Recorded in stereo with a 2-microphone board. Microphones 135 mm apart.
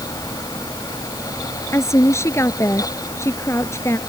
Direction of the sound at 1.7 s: 20° left (ahead or behind).